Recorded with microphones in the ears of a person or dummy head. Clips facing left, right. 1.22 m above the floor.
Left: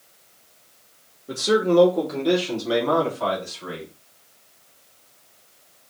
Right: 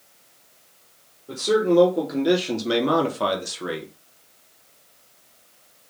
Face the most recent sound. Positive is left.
turn(degrees=-70)  # may be behind; listen again after turning